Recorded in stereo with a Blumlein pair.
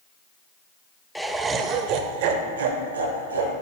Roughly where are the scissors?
I don't hear scissors.